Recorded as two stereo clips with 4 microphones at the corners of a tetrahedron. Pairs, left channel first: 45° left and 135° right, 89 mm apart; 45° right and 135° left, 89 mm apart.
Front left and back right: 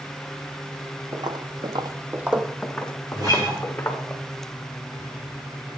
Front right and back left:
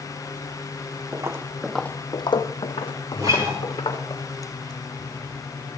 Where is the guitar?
Straight behind, 6.5 m.